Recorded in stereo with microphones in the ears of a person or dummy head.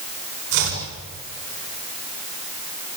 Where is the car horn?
No car horn in this recording.